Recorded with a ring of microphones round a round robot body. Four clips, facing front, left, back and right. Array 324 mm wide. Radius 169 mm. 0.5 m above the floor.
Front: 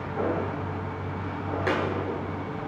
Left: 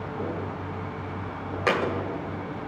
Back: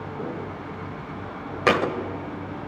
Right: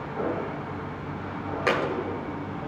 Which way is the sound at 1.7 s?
Straight behind.